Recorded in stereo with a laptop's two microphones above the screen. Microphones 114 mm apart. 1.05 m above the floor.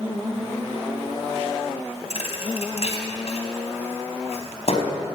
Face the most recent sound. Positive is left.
turn(degrees=65)  # may be behind; listen again after turning